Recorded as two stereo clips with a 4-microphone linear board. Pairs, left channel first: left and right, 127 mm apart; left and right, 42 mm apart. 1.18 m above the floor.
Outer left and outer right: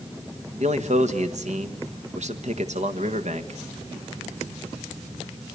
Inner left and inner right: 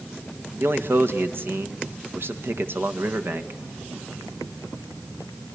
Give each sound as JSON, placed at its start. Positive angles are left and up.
{"t": 0.6, "sound": "a man speaking", "side_deg": -65, "distance_m": 1.6}